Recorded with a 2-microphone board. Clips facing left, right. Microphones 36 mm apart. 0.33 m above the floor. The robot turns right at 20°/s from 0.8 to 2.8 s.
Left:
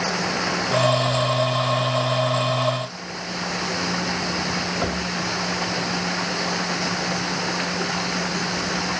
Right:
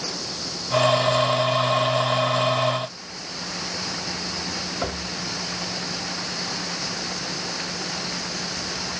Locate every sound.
0.0 s running water: 115° left; by 9.0 s 155° left